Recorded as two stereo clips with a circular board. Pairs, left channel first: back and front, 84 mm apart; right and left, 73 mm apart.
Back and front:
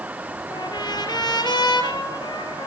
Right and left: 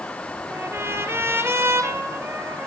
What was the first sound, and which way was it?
A trumpet, 145° left.